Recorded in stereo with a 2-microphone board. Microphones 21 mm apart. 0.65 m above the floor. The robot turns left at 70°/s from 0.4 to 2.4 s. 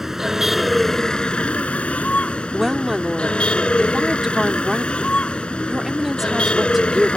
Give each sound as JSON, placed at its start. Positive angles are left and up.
{"t": 0.0, "sound": "a vehicle", "azimuth_deg": -165}
{"t": 2.5, "sound": "a woman speaking", "side_deg": -10}